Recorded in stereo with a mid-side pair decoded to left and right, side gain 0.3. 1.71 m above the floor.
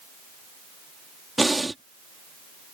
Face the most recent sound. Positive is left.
turn(degrees=-20)